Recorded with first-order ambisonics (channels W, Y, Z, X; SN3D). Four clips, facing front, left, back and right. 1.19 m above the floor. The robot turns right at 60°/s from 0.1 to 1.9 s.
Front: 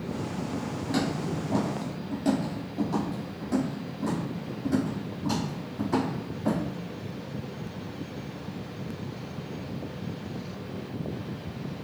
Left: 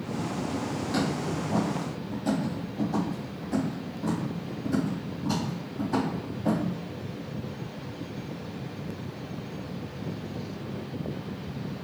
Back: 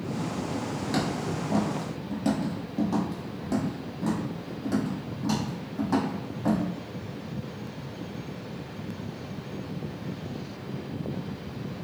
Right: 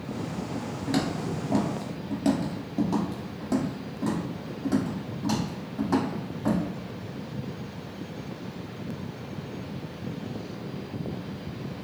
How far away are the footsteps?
About 1.3 m.